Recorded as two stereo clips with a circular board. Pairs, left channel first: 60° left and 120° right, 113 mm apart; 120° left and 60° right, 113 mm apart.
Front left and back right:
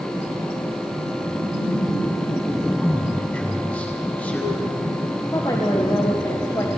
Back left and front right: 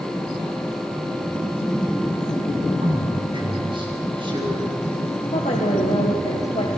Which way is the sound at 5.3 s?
120° left.